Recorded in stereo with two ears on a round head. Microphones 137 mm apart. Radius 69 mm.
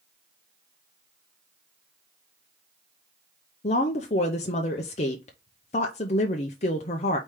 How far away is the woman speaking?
About 0.6 m.